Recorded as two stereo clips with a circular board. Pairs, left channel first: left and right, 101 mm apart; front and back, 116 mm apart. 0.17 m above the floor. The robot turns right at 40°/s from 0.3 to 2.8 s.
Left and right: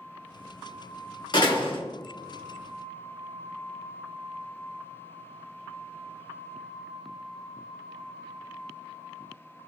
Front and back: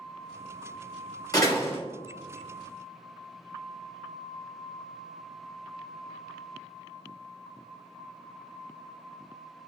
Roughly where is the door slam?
Ahead left.